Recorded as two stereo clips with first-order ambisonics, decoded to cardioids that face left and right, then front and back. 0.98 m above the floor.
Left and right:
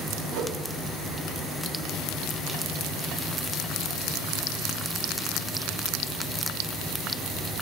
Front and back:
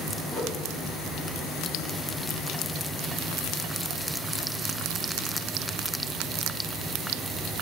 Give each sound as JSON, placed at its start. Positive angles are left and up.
{"t": 0.3, "sound": "a whoosh", "azimuth_deg": -60, "distance_m": 1.2}